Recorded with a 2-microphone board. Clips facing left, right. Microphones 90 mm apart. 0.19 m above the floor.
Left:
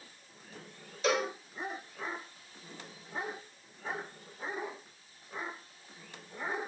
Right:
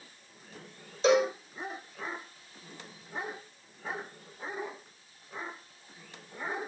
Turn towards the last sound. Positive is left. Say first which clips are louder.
# right 7 dB
turn(degrees=-25)  # may be behind; listen again after turning